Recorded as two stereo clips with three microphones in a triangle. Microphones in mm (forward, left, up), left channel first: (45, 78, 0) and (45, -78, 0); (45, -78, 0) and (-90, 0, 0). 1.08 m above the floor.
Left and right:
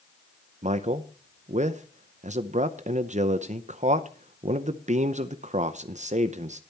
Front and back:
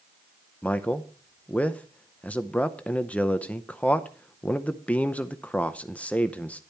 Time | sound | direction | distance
0.6 | a man speaking | 110° right | 0.6 m